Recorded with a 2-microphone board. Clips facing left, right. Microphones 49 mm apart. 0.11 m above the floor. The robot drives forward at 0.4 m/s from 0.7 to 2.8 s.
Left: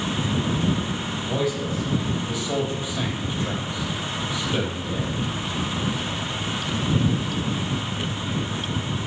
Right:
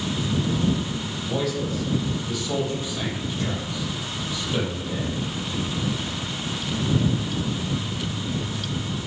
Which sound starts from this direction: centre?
A man speaking, at 1.2 s.